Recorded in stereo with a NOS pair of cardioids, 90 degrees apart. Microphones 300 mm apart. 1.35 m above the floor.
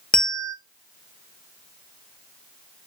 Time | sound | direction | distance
0.1 | a bell | 5° left | 0.6 m